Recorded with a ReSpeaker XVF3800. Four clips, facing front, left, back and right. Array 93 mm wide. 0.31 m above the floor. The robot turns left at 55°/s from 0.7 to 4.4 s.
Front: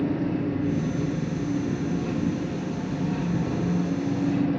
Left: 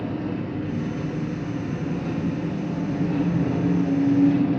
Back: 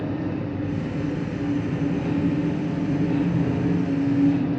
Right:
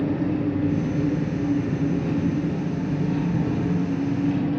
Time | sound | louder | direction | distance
0.0 | an engine running | right 5 dB, front 2 dB | 80° right | 3 m